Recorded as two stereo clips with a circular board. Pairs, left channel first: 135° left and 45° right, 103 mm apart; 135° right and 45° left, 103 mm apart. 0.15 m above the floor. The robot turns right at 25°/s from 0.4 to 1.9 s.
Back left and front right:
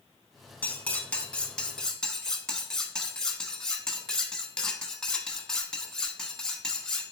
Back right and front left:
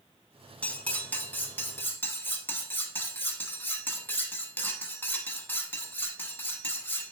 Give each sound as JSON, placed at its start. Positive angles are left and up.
{"t": 0.6, "sound": "cutlery clinking", "azimuth_deg": 175, "distance_m": 0.6}